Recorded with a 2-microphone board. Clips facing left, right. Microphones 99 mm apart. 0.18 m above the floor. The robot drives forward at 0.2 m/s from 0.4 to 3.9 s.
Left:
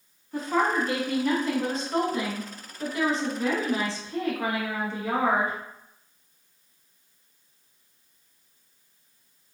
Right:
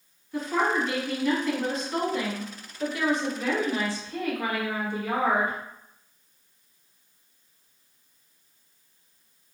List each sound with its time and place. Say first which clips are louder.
0.3 s a woman speaking: left 1 dB; 35° left (ahead or behind), 1.1 m; by 5.6 s 25° left (ahead or behind), 1.3 m